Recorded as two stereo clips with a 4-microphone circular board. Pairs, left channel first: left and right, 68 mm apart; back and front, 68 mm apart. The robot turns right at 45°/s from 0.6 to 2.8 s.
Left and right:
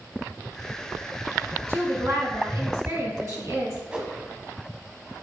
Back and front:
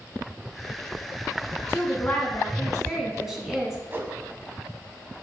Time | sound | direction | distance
1.7 | a woman speaking | 135° right | 1.8 m
3.9 | a whoosh | 20° right | 0.9 m